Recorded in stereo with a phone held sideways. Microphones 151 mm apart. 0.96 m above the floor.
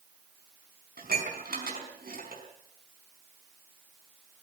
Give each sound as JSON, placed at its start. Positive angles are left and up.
{"t": 1.0, "sound": "dishes clattering", "side_deg": -75, "distance_m": 5.0}